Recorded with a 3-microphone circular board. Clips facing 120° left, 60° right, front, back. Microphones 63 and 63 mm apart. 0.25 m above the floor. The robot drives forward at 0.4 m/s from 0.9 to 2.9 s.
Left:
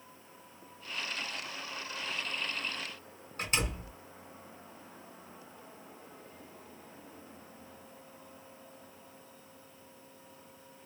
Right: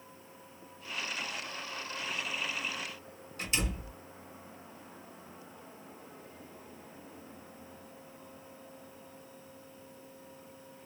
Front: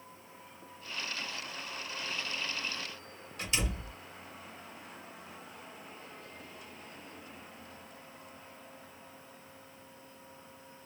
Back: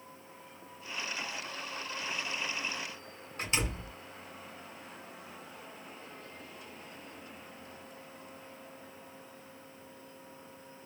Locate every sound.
3.4 s a door slam: 145° left, 1.7 m